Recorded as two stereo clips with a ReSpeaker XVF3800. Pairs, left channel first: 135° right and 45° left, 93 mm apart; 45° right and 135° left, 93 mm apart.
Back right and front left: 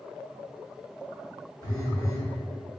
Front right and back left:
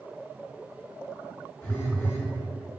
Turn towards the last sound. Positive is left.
turn(degrees=-90)